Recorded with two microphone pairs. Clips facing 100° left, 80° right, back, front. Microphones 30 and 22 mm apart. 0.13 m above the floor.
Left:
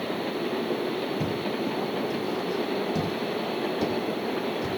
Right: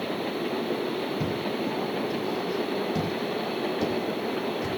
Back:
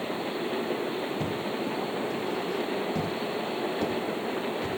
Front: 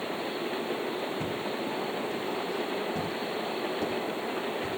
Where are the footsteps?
150° right, 9.5 m; by 4.7 s 175° left, 7.5 m.